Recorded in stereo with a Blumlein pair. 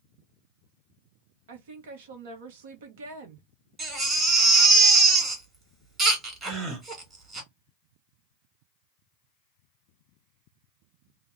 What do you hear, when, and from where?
1.5 s a woman speaking: 55° right, 1.0 m
3.8 s a baby crying: 15° right, 1.6 m
6.4 s a gasp: 25° right, 1.6 m